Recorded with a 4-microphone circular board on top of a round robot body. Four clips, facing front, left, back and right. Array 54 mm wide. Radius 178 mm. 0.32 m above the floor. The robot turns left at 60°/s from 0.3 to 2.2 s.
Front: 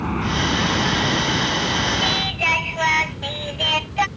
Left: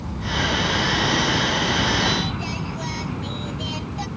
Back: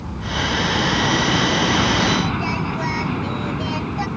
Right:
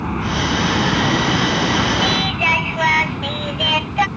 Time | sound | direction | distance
0.0 | an aircraft | 50° right | ?
2.0 | singing | 55° right | ?